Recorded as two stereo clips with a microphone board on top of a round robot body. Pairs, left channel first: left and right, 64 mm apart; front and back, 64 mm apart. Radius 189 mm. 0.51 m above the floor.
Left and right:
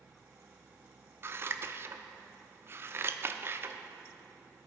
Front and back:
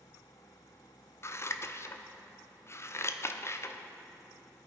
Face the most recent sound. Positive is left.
turn(degrees=-45)